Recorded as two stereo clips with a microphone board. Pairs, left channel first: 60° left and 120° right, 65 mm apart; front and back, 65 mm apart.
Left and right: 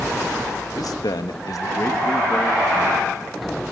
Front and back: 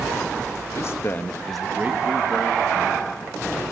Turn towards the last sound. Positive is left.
turn(degrees=160)